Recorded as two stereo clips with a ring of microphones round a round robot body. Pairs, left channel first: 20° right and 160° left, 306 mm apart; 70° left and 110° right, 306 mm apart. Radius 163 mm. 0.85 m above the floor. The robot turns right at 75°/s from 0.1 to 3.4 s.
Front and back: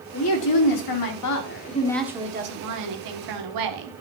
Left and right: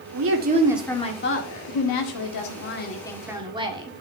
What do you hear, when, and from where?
0.1 s a woman speaking: 75° right, 1.8 m; by 3.9 s 170° left, 1.8 m